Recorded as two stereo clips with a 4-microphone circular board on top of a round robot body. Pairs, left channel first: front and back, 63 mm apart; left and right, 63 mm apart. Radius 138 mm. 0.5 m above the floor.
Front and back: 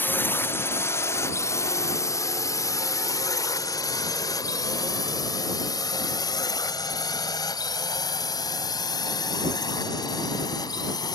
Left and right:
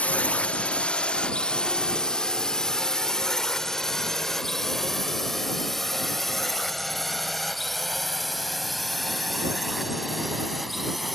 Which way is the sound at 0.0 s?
35° left.